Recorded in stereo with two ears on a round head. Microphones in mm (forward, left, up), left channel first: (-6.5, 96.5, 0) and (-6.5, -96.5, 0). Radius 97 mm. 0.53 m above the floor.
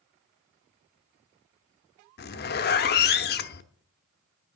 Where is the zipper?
45° left (ahead or behind), 0.8 m.